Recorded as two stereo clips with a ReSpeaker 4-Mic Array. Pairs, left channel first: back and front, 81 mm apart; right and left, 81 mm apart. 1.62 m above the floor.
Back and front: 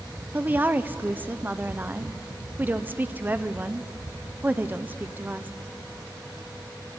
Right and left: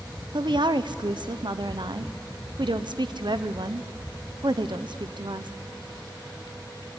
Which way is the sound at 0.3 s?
65° left.